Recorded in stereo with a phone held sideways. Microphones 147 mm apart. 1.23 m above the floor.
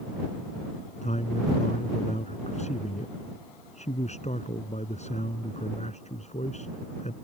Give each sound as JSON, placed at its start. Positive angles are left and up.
{"t": 1.0, "sound": "a man speaking", "side_deg": 50}